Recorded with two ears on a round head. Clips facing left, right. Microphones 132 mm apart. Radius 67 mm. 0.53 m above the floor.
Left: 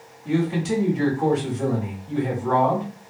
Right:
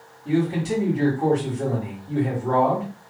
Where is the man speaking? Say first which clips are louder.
Even; 5° left (ahead or behind), 1.5 m.